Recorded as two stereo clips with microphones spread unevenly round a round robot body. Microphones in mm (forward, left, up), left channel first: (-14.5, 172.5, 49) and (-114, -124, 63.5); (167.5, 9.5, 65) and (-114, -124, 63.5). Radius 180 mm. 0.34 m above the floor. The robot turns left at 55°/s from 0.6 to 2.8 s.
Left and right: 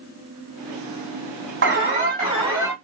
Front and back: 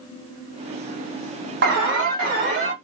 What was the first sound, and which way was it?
An alarm, 130° right.